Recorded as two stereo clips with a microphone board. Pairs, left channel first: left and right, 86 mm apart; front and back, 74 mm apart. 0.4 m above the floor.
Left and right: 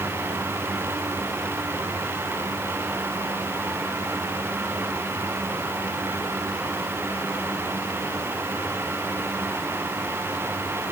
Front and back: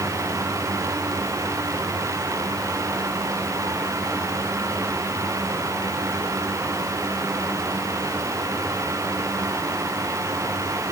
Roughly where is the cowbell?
I don't hear a cowbell.